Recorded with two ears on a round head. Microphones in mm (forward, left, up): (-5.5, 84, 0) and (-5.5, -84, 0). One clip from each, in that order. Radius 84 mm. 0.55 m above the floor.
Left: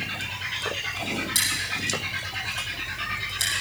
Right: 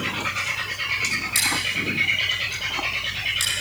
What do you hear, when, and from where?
1.4 s scissors: 5° right (ahead or behind), 7 m